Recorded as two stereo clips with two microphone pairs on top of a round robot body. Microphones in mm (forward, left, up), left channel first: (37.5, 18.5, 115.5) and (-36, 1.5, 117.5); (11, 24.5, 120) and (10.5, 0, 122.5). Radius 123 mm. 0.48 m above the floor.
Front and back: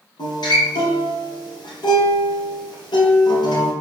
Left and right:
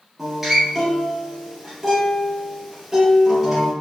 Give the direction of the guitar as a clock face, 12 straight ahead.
12 o'clock.